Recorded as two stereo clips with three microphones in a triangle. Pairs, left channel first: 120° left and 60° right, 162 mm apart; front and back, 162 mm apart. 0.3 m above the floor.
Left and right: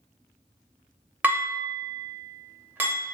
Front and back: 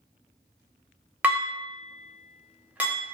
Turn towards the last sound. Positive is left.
turn(degrees=-115)